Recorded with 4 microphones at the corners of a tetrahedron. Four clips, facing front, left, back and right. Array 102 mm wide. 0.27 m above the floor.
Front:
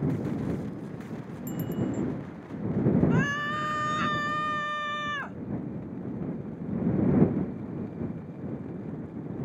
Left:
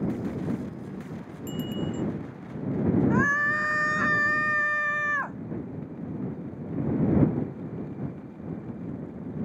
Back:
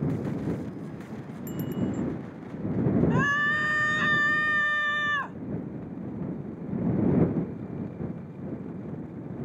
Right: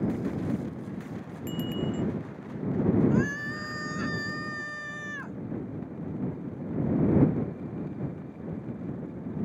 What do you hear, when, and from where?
1.5 s a bicycle bell: 70° right
3.1 s a scream: 95° left